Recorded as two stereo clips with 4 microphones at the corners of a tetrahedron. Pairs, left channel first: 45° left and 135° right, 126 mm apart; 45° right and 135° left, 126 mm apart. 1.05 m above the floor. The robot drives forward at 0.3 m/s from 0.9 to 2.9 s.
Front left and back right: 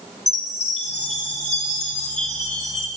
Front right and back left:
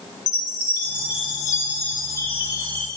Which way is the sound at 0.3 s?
25° left.